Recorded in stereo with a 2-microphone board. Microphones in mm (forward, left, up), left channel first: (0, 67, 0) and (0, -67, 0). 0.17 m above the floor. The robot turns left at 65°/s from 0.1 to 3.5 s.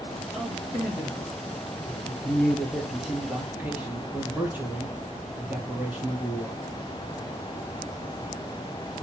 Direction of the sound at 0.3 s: 5° right (ahead or behind).